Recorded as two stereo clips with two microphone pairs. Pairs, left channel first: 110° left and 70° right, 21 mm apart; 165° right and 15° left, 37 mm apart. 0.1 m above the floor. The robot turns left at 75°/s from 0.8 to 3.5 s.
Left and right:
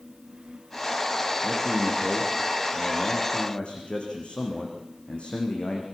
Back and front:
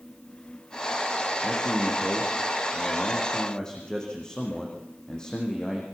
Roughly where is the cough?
I don't hear a cough.